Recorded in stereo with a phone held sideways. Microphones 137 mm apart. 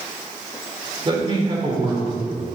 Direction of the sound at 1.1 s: 35° right (ahead or behind).